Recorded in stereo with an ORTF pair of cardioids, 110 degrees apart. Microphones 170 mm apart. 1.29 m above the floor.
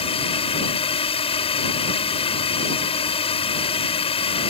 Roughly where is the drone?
Ahead left.